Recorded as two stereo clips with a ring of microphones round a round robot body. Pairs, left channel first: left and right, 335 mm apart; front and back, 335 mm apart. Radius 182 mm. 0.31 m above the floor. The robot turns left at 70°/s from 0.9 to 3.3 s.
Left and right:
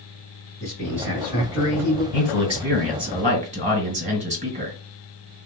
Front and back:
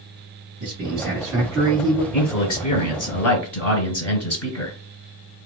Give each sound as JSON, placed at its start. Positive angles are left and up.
{"t": 0.6, "sound": "a man speaking", "azimuth_deg": 170, "distance_m": 2.0}
{"t": 2.1, "sound": "a man speaking", "azimuth_deg": 55, "distance_m": 2.5}